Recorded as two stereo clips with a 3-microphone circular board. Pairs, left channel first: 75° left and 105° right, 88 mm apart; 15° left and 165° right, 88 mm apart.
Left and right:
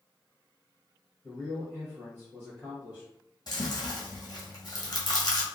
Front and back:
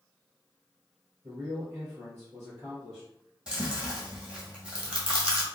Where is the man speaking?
140° left, 2.0 m.